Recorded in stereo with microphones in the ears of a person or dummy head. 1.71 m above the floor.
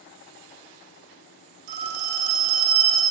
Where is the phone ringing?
55° right (ahead or behind), 3 m.